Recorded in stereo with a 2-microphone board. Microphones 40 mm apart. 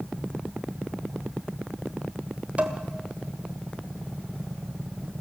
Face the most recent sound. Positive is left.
turn(degrees=-35)  # may be behind; listen again after turning